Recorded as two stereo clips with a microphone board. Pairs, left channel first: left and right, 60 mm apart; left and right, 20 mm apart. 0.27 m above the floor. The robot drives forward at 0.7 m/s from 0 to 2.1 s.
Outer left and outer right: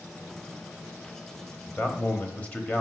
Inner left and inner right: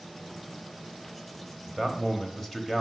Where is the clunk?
No clunk in this recording.